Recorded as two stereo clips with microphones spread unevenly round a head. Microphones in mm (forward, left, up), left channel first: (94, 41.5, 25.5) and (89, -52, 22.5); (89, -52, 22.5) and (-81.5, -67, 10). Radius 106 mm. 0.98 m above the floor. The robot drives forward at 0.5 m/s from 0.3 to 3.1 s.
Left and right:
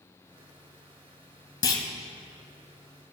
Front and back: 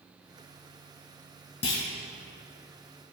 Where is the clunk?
60° left, 1.2 m; by 1.9 s 65° left, 1.2 m.